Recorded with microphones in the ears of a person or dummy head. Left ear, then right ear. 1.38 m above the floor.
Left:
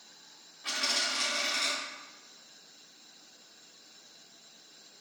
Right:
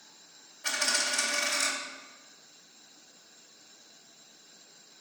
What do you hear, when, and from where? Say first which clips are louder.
0.6 s a dropped coin: right 2 dB; 20° right (ahead or behind), 2 m